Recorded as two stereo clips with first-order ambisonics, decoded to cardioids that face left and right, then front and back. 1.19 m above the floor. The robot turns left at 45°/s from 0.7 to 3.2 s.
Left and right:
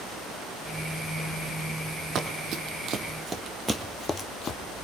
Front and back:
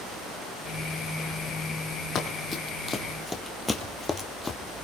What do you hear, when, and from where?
2.1 s running footsteps: 45° right, 1.7 m; by 4.6 s 65° left, 1.3 m